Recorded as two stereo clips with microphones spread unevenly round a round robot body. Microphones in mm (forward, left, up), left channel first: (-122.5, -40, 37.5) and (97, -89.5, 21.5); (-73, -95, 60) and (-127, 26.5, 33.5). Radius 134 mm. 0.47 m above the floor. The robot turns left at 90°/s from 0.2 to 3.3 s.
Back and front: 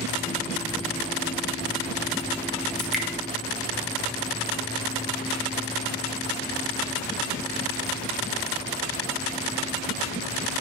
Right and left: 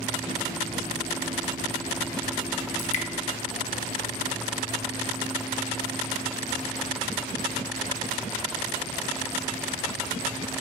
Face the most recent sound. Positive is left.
turn(degrees=-135)